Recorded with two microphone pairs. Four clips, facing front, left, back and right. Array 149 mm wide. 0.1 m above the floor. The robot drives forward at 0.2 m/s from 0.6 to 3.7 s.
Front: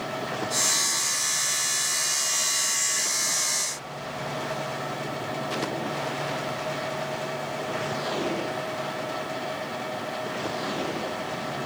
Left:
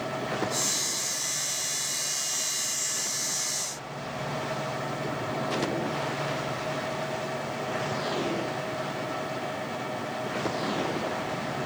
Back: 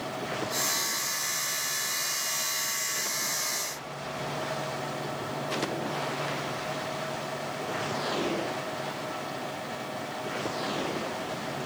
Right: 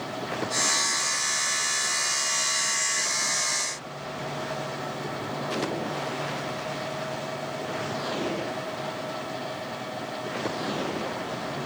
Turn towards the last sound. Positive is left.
No sound to turn to.